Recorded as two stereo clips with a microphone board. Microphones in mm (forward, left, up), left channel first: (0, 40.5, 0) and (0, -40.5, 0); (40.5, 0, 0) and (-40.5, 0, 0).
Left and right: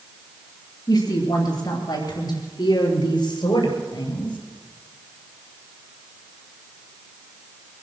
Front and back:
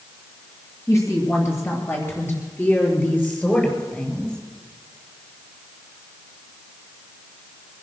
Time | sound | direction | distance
0.9 | a woman speaking | 50° left | 5 m